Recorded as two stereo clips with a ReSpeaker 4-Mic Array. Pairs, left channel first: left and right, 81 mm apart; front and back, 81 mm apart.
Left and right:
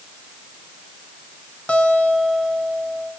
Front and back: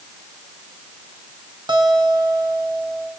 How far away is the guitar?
About 3 m.